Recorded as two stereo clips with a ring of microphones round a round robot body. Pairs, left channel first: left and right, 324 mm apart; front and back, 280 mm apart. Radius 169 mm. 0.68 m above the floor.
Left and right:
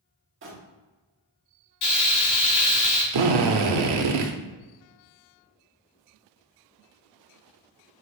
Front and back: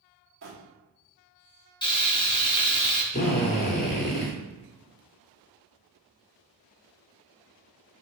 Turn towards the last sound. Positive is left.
turn(degrees=-70)